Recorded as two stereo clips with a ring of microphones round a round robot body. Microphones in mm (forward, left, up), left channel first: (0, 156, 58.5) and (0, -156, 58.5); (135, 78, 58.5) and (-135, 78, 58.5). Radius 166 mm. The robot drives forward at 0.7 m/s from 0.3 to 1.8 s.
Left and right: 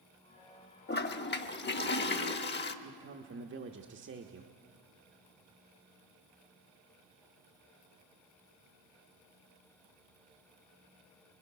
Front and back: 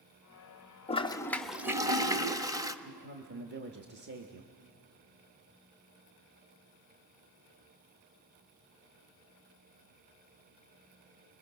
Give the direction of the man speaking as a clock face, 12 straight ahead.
5 o'clock.